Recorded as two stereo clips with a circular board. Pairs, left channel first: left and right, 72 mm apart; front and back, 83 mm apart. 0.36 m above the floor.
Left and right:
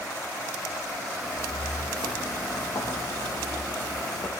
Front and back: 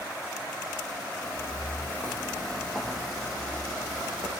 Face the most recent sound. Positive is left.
turn(degrees=125)